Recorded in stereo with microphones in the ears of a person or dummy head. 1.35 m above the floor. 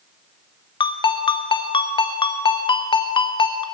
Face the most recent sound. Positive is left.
turn(degrees=20)  # may be behind; listen again after turning